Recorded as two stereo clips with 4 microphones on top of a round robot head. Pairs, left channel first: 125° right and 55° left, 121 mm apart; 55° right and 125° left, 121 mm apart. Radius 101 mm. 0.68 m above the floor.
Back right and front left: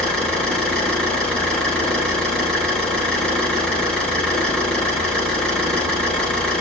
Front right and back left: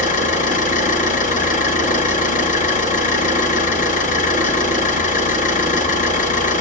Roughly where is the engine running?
Ahead right.